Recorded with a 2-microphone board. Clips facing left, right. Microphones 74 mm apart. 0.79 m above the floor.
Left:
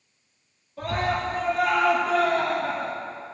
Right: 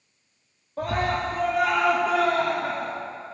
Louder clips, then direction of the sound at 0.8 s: Right 1 dB; 40° right (ahead or behind).